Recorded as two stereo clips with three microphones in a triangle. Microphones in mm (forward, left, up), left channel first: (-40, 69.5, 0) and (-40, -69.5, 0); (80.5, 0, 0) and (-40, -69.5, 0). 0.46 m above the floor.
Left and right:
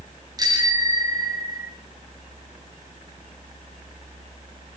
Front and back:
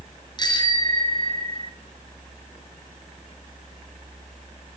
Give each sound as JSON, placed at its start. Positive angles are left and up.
{"t": 0.4, "sound": "a bicycle bell", "azimuth_deg": -30, "distance_m": 5.0}